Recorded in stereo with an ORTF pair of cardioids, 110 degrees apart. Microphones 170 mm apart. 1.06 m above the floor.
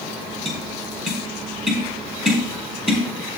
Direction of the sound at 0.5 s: 5° right.